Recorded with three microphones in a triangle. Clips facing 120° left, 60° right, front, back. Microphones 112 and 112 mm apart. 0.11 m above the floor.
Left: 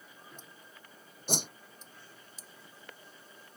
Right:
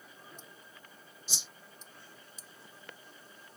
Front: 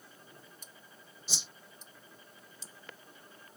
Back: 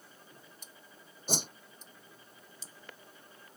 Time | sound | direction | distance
1.3 | a whoosh | 145° left | ?